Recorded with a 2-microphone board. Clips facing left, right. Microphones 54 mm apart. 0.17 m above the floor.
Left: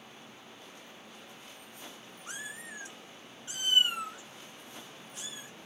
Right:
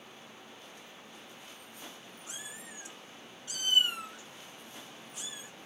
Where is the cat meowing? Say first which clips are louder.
Left 6 dB; 55° left (ahead or behind), 0.9 m; by 5.7 s 5° right (ahead or behind), 2 m.